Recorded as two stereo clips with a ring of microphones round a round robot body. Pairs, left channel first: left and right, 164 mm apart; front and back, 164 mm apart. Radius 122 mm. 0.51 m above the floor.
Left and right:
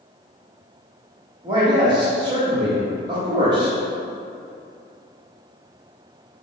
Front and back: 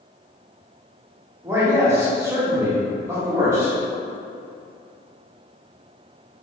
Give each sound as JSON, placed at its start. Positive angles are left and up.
{"t": 1.4, "sound": "a man speaking", "azimuth_deg": -120, "distance_m": 1.0}